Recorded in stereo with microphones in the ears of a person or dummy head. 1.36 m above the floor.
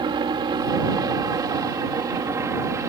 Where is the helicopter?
25° right (ahead or behind); by 2.9 s 15° right (ahead or behind).